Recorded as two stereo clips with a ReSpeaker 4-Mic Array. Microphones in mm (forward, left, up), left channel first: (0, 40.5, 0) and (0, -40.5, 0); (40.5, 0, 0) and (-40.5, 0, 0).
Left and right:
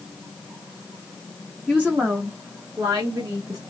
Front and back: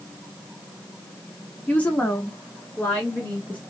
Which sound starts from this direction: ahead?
A woman speaking, at 1.7 s.